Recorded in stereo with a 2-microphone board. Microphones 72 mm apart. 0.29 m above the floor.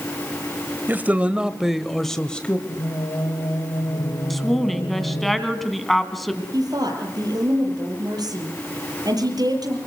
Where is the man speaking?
30° right (ahead or behind), 1.3 m; by 2.6 s 15° left (ahead or behind), 1.4 m.